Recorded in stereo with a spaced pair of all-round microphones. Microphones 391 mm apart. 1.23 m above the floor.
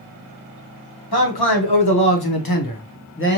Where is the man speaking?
70° left (ahead or behind), 1.2 m; by 3.4 s 25° left (ahead or behind), 0.8 m.